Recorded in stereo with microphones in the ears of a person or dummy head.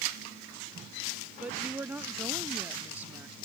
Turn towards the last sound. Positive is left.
turn(degrees=-10)  # may be behind; listen again after turning